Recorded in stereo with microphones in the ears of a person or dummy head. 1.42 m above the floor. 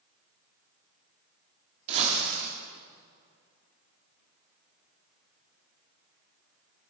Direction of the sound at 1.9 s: 35° right (ahead or behind).